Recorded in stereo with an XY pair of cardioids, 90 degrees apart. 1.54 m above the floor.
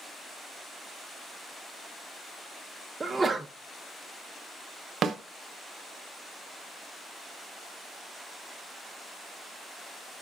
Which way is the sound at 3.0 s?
30° right.